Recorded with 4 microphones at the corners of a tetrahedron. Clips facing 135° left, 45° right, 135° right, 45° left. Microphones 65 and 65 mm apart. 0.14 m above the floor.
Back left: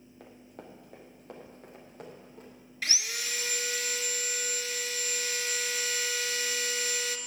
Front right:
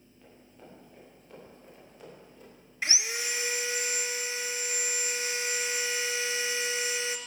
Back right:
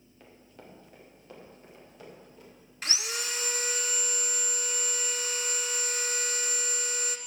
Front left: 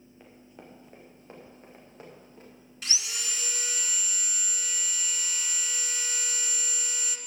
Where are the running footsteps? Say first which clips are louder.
Back left 4 dB, front left 1 dB; 125° left, 2.5 m; by 2.5 s 95° left, 4.5 m.